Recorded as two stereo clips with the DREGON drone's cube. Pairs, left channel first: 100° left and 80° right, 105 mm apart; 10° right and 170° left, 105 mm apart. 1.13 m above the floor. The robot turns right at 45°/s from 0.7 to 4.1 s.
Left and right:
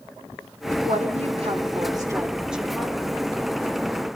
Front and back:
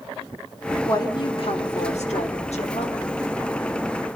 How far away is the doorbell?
No doorbell in this recording.